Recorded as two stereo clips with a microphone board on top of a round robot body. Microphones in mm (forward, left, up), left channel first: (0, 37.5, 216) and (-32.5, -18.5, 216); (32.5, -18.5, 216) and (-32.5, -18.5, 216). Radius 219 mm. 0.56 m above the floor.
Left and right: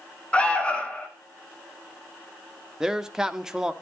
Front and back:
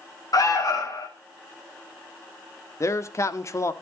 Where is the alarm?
10° right, 3.5 m.